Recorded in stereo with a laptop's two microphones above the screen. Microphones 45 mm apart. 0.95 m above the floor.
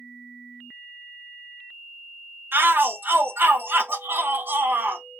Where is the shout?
50° right (ahead or behind), 0.5 m.